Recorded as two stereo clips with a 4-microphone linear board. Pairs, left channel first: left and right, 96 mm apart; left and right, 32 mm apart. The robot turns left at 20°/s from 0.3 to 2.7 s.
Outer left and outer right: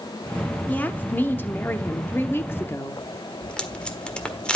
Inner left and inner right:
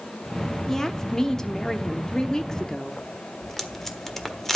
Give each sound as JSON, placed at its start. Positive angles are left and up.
{"t": 0.7, "sound": "a woman speaking", "side_deg": 15, "distance_m": 0.9}
{"t": 3.4, "sound": "tape being pulled", "side_deg": 10, "distance_m": 1.4}